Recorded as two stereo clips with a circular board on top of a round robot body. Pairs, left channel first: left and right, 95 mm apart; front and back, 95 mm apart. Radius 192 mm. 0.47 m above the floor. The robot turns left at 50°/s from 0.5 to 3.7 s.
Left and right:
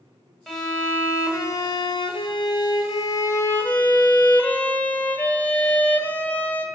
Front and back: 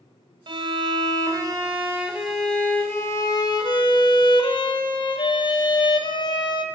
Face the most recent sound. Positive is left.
turn(degrees=20)